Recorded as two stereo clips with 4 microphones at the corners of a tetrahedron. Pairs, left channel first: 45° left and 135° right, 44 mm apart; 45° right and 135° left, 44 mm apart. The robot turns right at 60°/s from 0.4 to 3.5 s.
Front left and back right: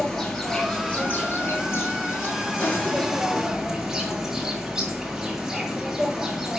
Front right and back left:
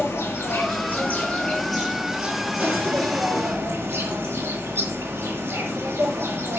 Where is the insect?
40° right, 5 m; by 6.6 s 145° left, 5 m.